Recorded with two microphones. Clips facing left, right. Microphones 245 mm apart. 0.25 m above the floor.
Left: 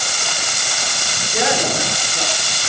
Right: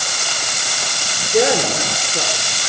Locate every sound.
1.3 s a woman speaking: 40° right (ahead or behind), 3.5 m